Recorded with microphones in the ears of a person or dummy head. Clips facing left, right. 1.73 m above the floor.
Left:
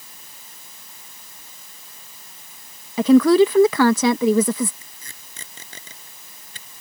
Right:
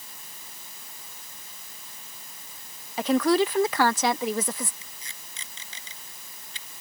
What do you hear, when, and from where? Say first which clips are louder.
3.0 s a woman speaking: left 9 dB; 70° left (ahead or behind)
4.8 s tape being pulled: left 1 dB; 35° left (ahead or behind)